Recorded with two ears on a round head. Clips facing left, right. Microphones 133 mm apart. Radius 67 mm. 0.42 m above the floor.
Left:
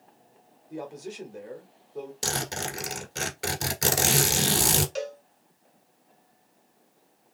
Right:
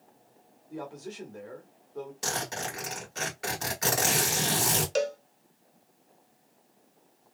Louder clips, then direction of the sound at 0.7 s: Left 2 dB; 15° left (ahead or behind).